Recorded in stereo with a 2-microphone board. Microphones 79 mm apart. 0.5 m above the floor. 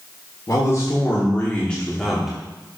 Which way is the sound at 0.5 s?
45° left (ahead or behind).